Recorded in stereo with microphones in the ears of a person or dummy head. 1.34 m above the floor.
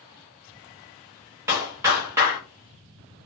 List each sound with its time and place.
1.5 s a clap: 20° right (ahead or behind), 0.8 m